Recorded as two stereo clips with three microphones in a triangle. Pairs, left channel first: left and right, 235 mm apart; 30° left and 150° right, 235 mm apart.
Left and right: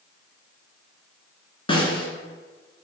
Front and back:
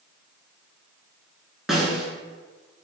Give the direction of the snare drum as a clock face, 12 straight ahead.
8 o'clock.